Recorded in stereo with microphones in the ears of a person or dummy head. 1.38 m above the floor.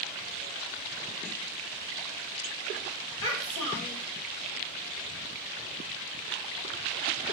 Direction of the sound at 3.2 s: 25° left (ahead or behind).